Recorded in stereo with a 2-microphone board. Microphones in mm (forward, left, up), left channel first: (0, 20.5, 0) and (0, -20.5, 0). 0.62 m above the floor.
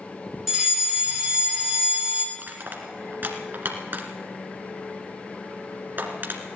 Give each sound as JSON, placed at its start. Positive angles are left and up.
{"t": 0.5, "sound": "a fire alarm", "side_deg": -10, "distance_m": 4.0}
{"t": 2.4, "sound": "crushing", "side_deg": -45, "distance_m": 1.9}